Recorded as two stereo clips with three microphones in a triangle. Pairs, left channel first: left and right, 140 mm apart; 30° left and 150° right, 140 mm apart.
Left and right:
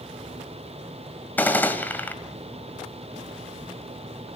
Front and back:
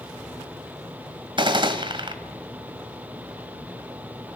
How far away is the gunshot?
About 1.8 m.